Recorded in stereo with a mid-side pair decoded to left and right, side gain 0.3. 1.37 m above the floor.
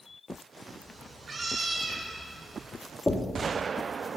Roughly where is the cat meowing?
Ahead right.